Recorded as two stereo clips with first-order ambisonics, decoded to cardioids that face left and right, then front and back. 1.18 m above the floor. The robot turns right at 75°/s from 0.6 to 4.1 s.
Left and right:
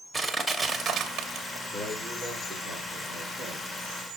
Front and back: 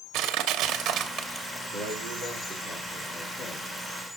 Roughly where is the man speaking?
Behind left.